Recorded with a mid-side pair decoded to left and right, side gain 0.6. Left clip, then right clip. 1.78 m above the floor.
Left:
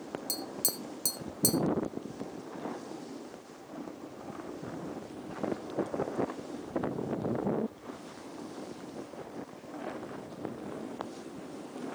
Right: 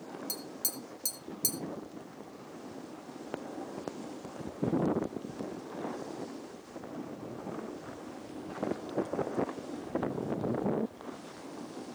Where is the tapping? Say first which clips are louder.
Left 4 dB; 25° left, 3 m.